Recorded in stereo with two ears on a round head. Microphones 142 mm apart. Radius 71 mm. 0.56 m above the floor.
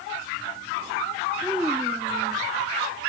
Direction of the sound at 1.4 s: 5° right (ahead or behind).